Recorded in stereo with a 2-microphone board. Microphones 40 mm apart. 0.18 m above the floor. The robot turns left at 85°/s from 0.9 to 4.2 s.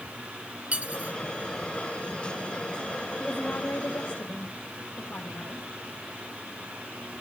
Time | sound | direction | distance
0.7 | cutlery clinking | 35° right (ahead or behind) | 1.2 m
3.2 | a woman speaking | 160° left | 4 m